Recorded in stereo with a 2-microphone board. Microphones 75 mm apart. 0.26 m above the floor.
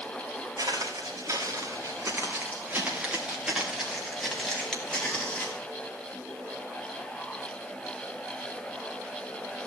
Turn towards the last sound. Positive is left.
turn(degrees=20)  # may be behind; listen again after turning